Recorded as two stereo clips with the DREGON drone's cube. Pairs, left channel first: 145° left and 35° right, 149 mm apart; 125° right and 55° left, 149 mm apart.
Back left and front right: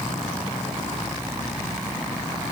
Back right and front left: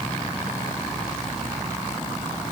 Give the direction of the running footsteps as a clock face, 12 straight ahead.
I don't hear running footsteps.